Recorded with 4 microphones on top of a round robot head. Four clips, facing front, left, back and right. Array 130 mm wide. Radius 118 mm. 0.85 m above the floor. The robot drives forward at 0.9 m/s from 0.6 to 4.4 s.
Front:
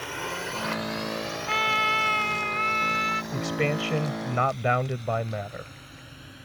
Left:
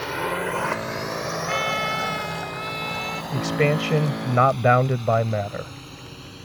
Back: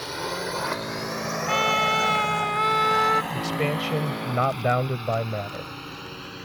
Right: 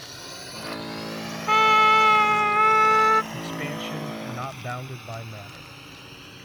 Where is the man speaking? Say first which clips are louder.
Left 10 dB, back 1 dB; 90° left; by 5.7 s 105° left.